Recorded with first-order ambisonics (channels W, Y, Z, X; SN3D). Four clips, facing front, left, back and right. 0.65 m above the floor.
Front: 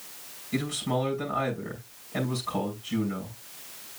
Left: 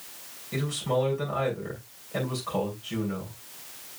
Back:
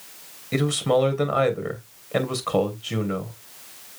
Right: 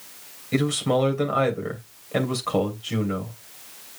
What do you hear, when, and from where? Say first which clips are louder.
0.5 s a man speaking: right 5 dB, back 8 dB; 150° right, 3 m